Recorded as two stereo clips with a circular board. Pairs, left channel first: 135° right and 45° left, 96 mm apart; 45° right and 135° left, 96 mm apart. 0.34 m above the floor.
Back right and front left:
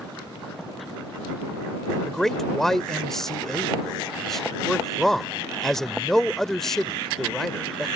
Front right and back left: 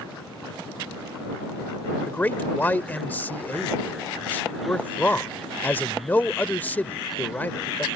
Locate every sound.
2.1 s a man speaking: 55° right